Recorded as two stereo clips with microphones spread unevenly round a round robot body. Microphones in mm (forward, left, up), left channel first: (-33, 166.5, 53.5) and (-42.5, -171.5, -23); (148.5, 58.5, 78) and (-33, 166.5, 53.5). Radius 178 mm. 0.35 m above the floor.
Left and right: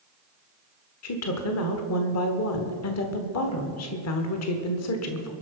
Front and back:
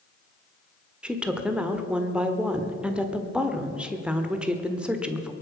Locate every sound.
1.0 s a woman speaking: 80° left, 1.5 m